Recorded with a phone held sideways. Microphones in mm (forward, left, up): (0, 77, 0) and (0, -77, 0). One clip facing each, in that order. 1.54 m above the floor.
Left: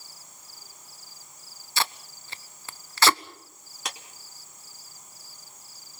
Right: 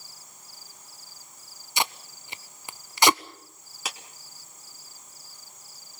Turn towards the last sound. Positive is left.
turn(degrees=-5)  # may be behind; listen again after turning